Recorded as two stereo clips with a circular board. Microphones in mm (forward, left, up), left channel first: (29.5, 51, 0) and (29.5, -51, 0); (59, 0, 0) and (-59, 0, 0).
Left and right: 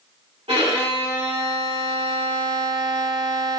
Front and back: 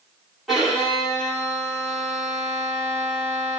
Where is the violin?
95° right, 2.5 m.